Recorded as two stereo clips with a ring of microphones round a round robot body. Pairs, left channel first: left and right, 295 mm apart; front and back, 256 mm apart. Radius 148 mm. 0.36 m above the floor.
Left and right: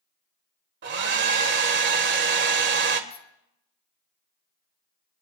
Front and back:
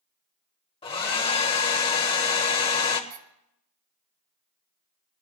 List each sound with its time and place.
0.8 s a hair dryer: 60° right, 1.5 m
3.1 s a squeak: 165° left, 1.1 m